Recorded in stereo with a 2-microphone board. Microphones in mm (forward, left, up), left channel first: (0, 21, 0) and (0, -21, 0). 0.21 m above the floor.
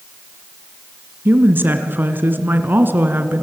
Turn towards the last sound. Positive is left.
turn(degrees=-50)  # may be behind; listen again after turning